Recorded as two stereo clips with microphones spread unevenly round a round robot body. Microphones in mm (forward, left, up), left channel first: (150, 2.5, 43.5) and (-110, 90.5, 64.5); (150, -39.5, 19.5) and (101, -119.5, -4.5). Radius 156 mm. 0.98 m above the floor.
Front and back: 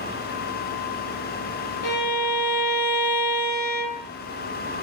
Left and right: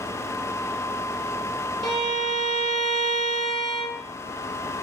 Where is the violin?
70° right, 1.5 m.